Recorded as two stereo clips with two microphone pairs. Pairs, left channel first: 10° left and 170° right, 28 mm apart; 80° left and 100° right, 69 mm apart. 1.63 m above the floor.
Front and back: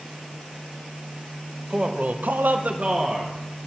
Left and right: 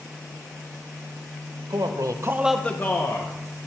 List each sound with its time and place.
1.7 s a man speaking: 110° right, 0.9 m; by 3.3 s 125° left, 1.1 m